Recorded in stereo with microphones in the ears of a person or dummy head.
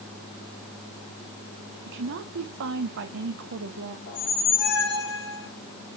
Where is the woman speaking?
65° right (ahead or behind), 1.0 m.